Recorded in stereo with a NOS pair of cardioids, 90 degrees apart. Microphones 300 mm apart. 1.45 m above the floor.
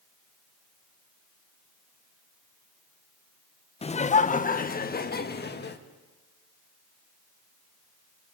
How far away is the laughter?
About 1.0 m.